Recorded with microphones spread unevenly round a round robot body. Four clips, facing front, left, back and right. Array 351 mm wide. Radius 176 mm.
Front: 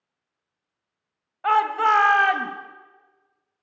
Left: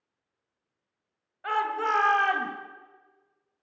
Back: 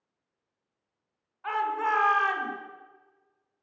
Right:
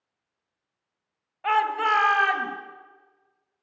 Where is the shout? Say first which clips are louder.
Right 5 dB, front 8 dB; 15° right, 1.7 m; by 2.5 s 5° left, 2.0 m.